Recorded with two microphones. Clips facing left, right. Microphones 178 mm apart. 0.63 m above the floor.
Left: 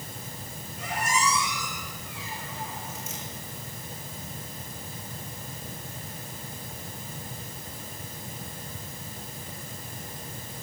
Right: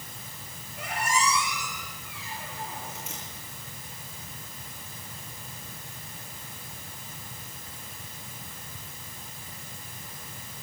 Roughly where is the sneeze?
No sneeze in this recording.